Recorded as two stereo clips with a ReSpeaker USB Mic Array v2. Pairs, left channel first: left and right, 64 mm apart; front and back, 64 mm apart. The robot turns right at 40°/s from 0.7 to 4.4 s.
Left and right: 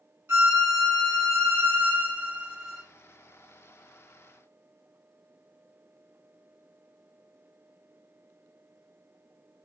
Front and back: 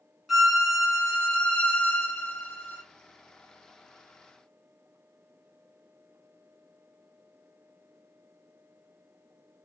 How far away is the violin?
About 1.5 m.